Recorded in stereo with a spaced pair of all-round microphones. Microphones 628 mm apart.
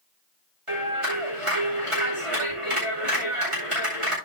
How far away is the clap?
About 8.5 m.